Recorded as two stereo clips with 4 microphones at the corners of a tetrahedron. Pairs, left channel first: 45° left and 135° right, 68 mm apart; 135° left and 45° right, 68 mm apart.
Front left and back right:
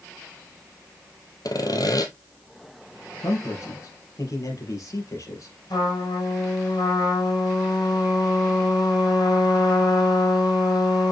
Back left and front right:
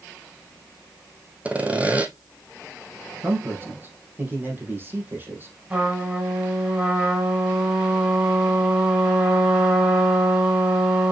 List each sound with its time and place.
1.4 s sawing: 25° left, 1.2 m
3.2 s a man speaking: 15° left, 3.5 m
5.7 s a trumpet: 30° left, 5 m